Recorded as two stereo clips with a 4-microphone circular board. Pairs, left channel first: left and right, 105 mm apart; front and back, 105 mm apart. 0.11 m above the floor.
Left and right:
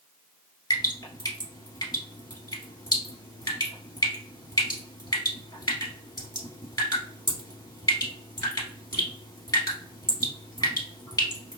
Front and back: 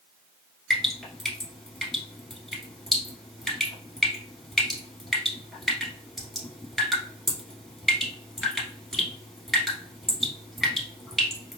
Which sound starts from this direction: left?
Dripping, at 0.7 s.